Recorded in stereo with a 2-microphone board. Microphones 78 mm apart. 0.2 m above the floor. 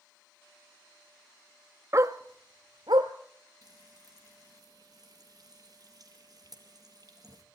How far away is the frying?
About 3.5 m.